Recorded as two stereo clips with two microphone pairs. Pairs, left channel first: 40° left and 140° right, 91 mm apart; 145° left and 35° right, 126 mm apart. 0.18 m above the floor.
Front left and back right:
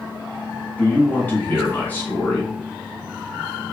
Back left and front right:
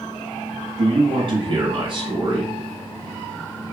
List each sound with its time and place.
0.8 s a man speaking: 20° right, 2 m